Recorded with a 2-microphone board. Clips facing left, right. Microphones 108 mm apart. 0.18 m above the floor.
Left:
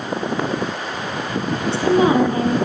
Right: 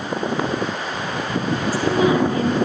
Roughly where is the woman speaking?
Left.